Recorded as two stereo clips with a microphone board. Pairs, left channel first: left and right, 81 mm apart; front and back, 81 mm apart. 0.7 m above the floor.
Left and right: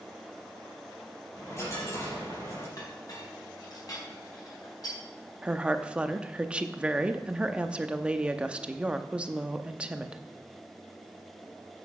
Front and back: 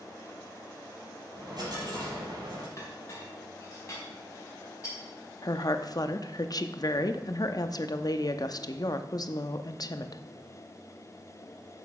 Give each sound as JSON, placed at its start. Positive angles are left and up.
{"t": 1.4, "sound": "a dropped coin", "azimuth_deg": 145, "distance_m": 5.5}
{"t": 2.8, "sound": "a clink", "azimuth_deg": 50, "distance_m": 4.0}
{"t": 5.4, "sound": "a woman speaking", "azimuth_deg": -15, "distance_m": 0.7}